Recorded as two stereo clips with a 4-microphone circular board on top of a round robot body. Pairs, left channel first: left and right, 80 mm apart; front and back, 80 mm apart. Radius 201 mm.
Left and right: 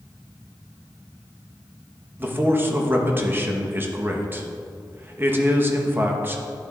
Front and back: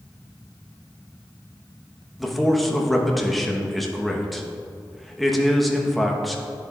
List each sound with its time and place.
2.2 s a man speaking: 90° right, 1.2 m